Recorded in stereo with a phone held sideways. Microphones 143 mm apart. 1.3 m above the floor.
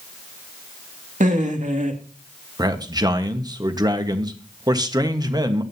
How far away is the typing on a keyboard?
No typing on a keyboard in this recording.